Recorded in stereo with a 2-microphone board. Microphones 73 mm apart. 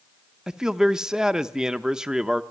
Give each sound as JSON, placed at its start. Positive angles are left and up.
{"t": 0.5, "sound": "a man speaking", "side_deg": -10, "distance_m": 0.7}